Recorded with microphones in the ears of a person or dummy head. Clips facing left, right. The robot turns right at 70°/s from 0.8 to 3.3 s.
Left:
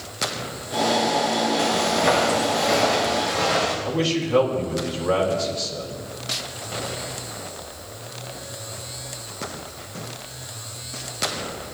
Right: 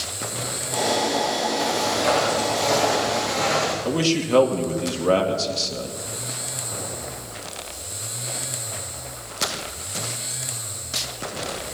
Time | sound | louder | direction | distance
1.6 | footsteps | left 2 dB | 70° left (ahead or behind) | 5.5 m
3.9 | a man speaking | right 2 dB | 65° right (ahead or behind) | 2 m